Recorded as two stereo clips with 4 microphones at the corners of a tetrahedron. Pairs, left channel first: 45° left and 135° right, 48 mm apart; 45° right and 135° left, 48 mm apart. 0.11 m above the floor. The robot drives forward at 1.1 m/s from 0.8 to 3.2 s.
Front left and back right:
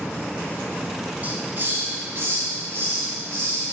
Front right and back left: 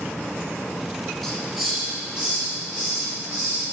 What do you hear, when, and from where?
1.2 s a hiss: 125° right, 1.3 m; by 3.6 s 170° right, 3 m